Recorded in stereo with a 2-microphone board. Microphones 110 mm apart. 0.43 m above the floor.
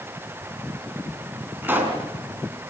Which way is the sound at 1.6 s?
20° right (ahead or behind).